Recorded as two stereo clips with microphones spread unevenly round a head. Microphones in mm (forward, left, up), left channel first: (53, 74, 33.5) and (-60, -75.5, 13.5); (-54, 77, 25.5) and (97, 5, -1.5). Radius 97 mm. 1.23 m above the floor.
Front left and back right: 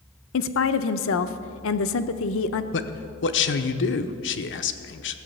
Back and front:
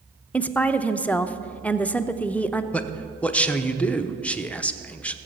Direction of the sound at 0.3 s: 75° left.